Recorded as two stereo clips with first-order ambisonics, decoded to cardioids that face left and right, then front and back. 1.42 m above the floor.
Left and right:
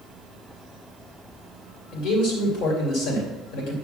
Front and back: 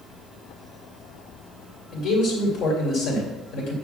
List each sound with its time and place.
1.9 s a man speaking: 55° left, 2.5 m